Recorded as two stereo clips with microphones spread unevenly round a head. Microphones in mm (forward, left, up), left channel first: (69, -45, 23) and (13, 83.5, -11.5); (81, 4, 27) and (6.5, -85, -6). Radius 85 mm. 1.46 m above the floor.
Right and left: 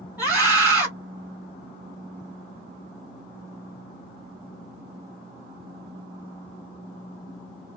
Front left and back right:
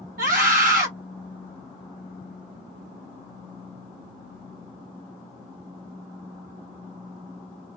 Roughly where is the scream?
Behind.